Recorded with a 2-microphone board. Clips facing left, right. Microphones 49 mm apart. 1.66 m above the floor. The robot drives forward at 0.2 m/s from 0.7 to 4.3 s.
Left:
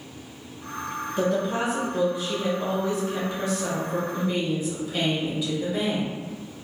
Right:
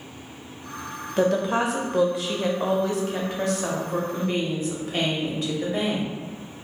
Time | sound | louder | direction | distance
1.2 | a woman speaking | right 3 dB | 65° right (ahead or behind) | 0.5 m